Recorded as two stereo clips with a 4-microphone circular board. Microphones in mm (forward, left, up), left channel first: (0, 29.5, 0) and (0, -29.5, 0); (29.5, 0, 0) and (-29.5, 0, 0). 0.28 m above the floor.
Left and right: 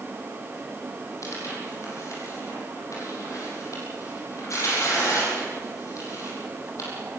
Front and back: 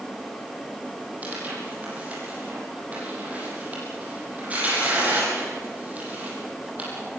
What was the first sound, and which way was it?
Tearing paper, 115° left.